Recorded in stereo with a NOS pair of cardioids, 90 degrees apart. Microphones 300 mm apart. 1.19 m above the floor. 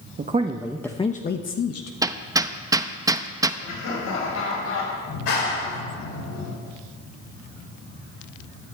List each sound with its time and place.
0.2 s a man speaking: 30° right, 1.1 m; by 1.9 s 55° left, 1.3 m
2.0 s hammering: 10° right, 0.8 m
3.6 s laughter: 65° left, 7 m
5.1 s a clap: 65° left, 5.5 m